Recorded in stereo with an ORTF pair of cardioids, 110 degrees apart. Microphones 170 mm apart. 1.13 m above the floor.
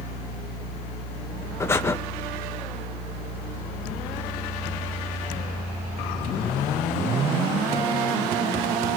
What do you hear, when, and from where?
1.6 s breathing: 15° left, 0.7 m